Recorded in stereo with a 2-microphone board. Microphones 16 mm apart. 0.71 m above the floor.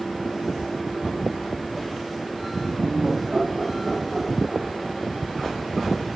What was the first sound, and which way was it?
Laughter, 15° right (ahead or behind).